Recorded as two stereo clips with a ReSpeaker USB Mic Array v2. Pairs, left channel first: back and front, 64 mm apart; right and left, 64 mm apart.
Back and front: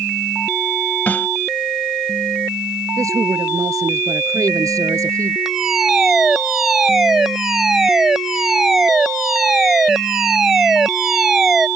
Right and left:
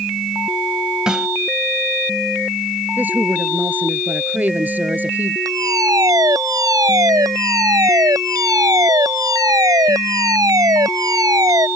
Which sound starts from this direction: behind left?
A snare drum, at 1.1 s.